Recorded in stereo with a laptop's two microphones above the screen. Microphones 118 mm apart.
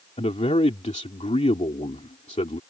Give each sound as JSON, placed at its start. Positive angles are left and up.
{"t": 0.2, "sound": "a man speaking", "side_deg": 75}